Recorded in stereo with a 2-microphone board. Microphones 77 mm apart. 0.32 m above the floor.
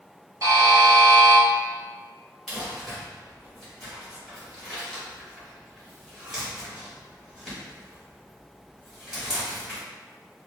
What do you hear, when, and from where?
0.4 s a buzzer: 45° right (ahead or behind), 1.0 m
2.5 s crumpling: 5° right (ahead or behind), 1.4 m